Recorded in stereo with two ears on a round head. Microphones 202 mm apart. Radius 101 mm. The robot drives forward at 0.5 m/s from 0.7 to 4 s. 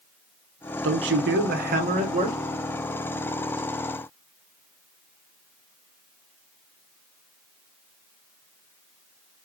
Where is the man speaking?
60° right (ahead or behind), 0.6 m; by 2.4 s 30° right (ahead or behind), 1.1 m.